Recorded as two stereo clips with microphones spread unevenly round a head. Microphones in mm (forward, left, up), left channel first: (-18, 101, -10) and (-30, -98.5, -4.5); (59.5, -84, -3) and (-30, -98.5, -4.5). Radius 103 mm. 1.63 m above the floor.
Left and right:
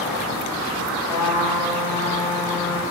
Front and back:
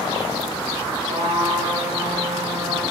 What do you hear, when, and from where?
1.1 s a trumpet: 165° left, 5 m